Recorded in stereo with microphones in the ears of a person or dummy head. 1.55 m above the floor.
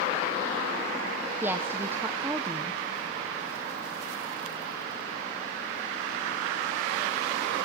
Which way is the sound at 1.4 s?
10° right (ahead or behind).